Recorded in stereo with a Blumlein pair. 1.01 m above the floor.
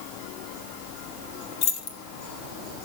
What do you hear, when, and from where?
1.6 s keys jangling: 45° left, 1.9 m